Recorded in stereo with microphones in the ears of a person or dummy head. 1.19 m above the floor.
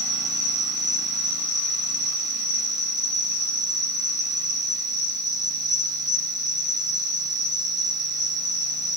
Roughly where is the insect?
Left.